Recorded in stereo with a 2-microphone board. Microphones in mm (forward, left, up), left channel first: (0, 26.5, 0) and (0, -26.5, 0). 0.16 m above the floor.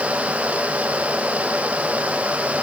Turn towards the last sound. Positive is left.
No sound to turn to.